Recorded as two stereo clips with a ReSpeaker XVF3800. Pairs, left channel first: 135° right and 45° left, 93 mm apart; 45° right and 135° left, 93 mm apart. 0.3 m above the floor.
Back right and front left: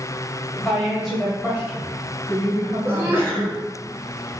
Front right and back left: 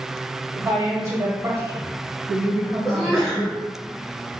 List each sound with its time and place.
0.5 s a woman speaking: 160° left, 1.4 m; by 3.4 s 80° left, 1.9 m
2.9 s a sneeze: 40° left, 0.9 m